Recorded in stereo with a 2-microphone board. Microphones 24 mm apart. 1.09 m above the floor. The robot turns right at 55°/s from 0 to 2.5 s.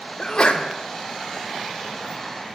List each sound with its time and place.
0.2 s a sneeze: 30° left (ahead or behind), 0.7 m; by 0.7 s 50° left (ahead or behind), 0.7 m